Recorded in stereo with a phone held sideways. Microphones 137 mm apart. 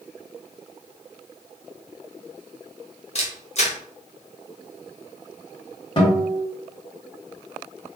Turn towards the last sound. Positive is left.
turn(degrees=35)  # may be behind; listen again after turning